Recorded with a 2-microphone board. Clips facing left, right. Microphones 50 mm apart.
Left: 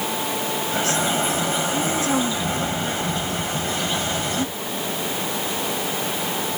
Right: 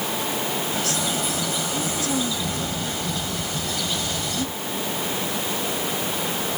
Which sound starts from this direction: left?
A bird, at 0.7 s.